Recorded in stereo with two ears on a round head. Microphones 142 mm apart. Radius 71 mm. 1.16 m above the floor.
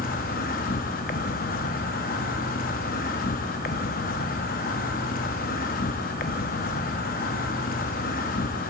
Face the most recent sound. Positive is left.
turn(degrees=60)  # may be behind; listen again after turning